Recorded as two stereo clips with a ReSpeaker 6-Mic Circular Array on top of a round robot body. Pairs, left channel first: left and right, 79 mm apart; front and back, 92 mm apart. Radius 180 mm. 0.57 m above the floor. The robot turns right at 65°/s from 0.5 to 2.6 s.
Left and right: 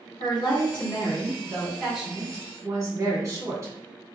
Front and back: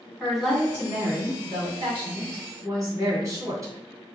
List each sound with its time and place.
0.2 s a woman speaking: 90° left, 1.6 m; by 3.7 s 135° right, 1.6 m